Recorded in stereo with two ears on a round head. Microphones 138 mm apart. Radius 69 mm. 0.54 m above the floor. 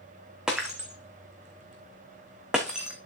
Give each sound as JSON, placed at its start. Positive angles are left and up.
{"t": 0.5, "sound": "breaking glass", "side_deg": -5, "distance_m": 2.5}